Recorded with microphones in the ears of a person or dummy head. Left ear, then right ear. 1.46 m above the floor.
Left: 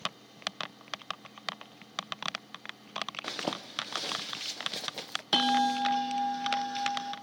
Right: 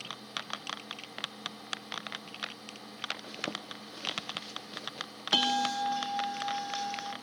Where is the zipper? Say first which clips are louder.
Left 3 dB; 25° left (ahead or behind), 0.8 m.